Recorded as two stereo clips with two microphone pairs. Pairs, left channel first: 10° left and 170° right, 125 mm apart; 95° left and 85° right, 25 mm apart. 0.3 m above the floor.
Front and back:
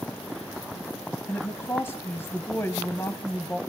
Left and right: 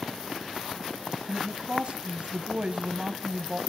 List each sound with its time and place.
1.3 s a woman speaking: 55° right, 1.9 m